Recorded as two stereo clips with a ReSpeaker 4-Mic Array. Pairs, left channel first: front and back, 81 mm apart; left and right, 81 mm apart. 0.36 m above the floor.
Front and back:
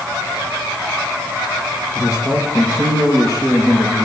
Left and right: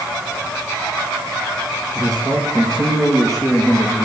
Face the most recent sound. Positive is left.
turn(degrees=40)